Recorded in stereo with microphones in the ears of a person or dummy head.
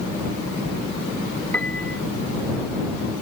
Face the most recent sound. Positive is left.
turn(degrees=5)  # may be behind; listen again after turning